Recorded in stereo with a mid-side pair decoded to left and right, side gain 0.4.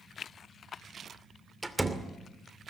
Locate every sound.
1.6 s a door slam: 10° right, 2.5 m